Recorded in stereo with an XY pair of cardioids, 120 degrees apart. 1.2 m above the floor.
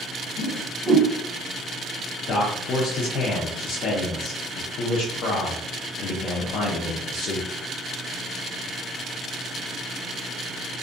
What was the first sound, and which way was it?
A whoosh, straight ahead.